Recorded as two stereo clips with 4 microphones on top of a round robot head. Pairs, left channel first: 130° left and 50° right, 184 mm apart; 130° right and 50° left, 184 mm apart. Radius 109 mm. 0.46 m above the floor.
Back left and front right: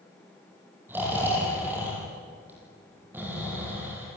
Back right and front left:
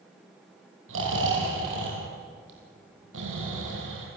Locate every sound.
0.9 s snoring: 30° left, 7 m